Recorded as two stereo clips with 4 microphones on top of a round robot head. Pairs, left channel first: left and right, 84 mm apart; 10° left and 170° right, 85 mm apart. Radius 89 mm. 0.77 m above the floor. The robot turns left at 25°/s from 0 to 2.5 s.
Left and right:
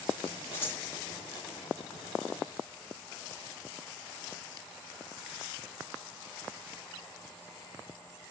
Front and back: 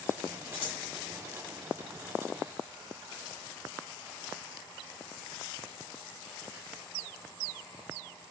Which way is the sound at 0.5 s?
25° left.